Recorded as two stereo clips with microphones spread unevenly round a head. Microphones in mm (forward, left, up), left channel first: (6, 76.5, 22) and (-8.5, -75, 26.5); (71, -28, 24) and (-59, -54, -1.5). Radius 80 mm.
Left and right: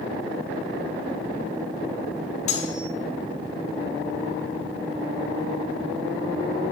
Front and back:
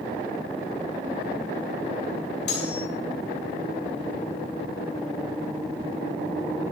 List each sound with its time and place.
2.5 s cutlery clinking: 35° left, 3 m